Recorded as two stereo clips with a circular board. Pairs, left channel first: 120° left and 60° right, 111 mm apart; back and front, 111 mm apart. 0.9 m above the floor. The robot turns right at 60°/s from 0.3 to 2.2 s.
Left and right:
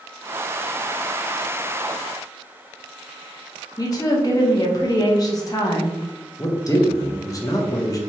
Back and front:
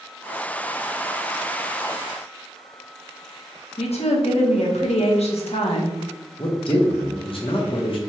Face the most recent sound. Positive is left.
turn(degrees=170)